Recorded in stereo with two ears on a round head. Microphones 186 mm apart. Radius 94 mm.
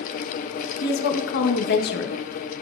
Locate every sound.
0.8 s a woman speaking: 55° left (ahead or behind), 1.2 m